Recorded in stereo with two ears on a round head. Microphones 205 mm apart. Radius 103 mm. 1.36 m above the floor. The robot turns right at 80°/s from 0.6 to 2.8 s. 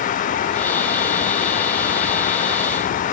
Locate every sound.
Only background noise.